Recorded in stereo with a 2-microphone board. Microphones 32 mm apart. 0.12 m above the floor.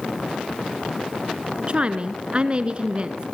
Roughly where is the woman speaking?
Right.